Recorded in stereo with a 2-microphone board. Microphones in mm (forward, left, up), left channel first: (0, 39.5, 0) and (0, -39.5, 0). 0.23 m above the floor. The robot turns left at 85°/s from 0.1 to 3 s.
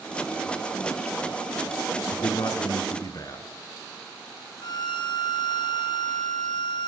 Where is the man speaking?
130° left, 3 m; by 3.5 s 55° left, 3 m.